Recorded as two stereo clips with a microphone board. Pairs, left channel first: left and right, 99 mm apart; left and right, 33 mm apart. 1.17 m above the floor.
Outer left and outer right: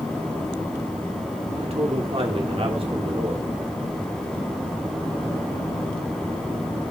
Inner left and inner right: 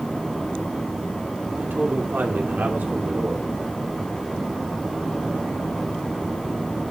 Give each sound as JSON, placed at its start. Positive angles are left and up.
{"t": 1.6, "sound": "a man speaking", "side_deg": -75, "distance_m": 2.0}